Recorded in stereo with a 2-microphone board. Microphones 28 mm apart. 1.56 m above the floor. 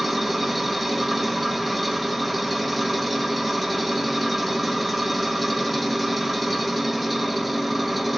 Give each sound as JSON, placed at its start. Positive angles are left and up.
{"t": 0.0, "sound": "an engine running", "side_deg": 0, "distance_m": 1.1}